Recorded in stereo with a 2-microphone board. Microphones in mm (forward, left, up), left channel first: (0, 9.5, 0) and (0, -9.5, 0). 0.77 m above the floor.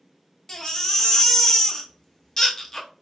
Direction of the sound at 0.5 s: 25° left (ahead or behind).